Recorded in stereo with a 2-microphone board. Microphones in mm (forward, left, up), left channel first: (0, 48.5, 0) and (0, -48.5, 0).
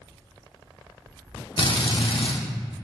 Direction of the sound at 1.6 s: 60° left (ahead or behind).